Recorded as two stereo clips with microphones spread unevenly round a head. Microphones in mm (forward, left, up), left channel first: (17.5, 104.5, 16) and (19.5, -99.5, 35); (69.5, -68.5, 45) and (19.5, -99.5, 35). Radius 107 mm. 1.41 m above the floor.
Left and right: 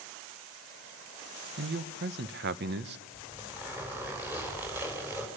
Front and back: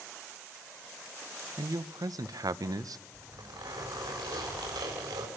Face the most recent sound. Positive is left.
turn(degrees=-170)